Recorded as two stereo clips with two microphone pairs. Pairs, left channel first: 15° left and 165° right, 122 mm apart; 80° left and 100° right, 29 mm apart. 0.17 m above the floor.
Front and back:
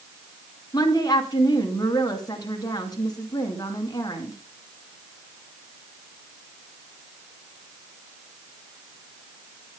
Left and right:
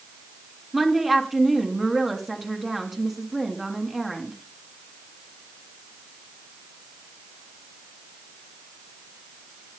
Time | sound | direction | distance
0.7 | a woman speaking | 25° right | 2 m